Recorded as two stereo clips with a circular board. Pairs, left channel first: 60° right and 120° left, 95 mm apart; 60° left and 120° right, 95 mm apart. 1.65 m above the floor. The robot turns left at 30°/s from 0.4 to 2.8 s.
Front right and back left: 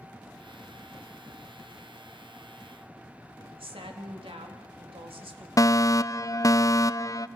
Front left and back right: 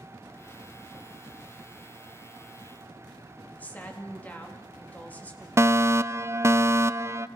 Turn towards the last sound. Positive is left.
turn(degrees=-80)